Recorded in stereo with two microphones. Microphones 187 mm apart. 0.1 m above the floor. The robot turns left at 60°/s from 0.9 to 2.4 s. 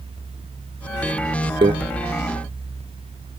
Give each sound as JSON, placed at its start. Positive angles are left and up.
{"t": 1.6, "sound": "a microwave", "side_deg": -30, "distance_m": 1.0}